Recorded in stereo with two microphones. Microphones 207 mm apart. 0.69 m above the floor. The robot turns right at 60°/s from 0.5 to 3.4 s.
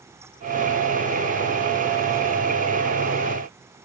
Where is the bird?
I don't hear a bird.